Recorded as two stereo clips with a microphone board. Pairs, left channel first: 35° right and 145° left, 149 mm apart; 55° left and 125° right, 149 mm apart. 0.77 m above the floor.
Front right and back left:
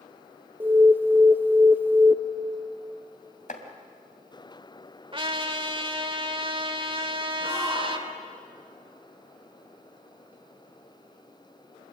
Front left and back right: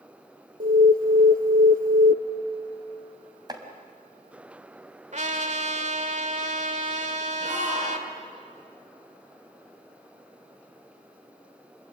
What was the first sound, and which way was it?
An alarm, 135° right.